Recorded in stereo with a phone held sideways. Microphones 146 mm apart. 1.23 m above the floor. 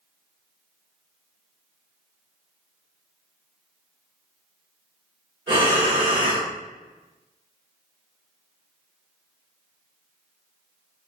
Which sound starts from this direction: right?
Breathing, at 5.5 s.